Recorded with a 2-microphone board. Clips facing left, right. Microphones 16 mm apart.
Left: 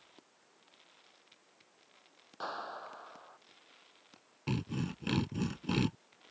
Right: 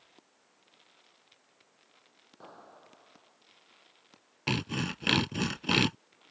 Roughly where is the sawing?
Right.